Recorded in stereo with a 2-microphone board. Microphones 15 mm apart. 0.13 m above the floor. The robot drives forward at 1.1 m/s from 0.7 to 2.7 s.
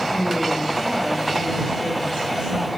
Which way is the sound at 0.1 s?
60° right (ahead or behind).